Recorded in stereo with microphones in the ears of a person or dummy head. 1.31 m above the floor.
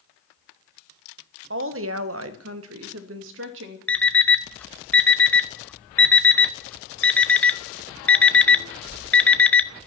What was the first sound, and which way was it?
A woman speaking, 65° right (ahead or behind).